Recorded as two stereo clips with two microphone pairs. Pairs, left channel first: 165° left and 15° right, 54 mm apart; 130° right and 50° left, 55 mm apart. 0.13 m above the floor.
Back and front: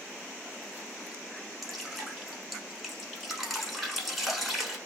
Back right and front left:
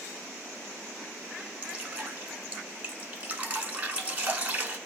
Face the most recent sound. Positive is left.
turn(degrees=75)